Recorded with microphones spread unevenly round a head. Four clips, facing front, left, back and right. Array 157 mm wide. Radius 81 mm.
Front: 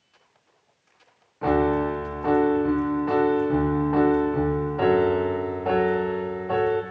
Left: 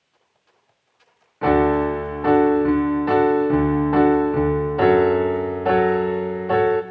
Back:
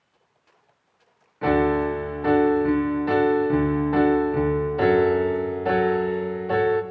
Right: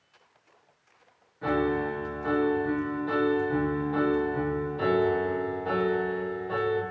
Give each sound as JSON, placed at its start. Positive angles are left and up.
{"t": 1.4, "sound": "a piano", "azimuth_deg": 95, "distance_m": 0.9}